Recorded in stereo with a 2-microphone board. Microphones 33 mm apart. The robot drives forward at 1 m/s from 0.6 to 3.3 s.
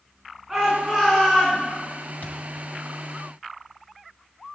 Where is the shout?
10° right (ahead or behind), 5 m; by 1.6 s 5° right (ahead or behind), 6 m.